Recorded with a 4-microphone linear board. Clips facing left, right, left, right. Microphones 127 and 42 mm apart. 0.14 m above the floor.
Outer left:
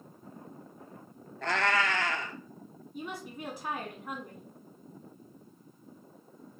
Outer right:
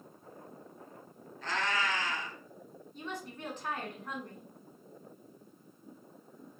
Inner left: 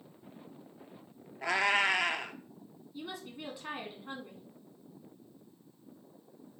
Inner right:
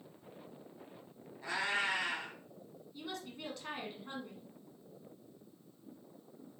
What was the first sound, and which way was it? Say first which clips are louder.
A cat meowing: outer left 5 dB, inner left 7 dB; 75° left (ahead or behind).